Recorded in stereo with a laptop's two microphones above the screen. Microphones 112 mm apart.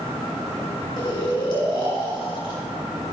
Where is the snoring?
45° left (ahead or behind), 2.5 m.